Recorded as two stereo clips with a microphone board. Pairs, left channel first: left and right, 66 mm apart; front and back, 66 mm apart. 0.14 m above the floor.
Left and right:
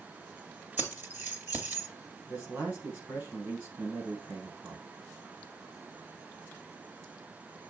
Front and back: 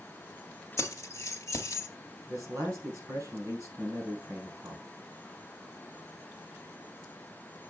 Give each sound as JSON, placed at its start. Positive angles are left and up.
{"t": 0.8, "sound": "keys jangling", "azimuth_deg": -35, "distance_m": 1.9}
{"t": 2.3, "sound": "a man speaking", "azimuth_deg": -140, "distance_m": 3.0}